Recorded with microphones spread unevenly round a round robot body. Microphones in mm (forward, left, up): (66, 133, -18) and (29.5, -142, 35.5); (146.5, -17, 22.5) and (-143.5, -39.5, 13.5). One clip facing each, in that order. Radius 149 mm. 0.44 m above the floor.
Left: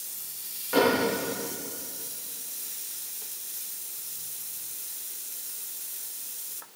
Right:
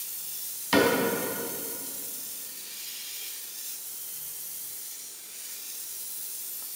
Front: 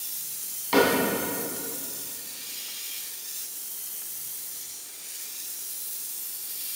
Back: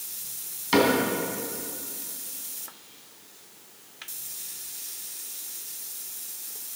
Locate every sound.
0.7 s a cupboard door: 120° right, 3.5 m